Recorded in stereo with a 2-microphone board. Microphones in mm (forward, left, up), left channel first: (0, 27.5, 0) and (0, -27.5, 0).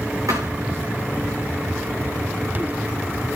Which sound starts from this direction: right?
A thud, at 0.3 s.